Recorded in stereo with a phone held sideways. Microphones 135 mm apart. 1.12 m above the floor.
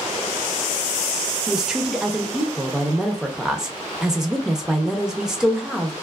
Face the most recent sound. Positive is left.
turn(degrees=-5)  # may be behind; listen again after turning